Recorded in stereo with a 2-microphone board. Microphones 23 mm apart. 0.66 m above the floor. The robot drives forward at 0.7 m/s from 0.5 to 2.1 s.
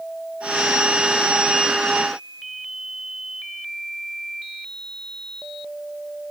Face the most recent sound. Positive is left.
No sound to turn to.